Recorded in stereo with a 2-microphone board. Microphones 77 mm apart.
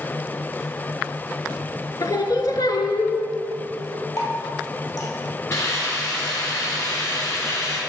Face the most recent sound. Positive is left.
turn(degrees=45)  # may be behind; listen again after turning